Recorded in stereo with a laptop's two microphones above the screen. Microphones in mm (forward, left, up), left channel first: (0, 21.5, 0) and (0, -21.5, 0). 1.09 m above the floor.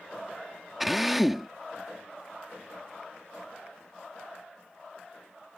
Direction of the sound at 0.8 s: 5° right (ahead or behind).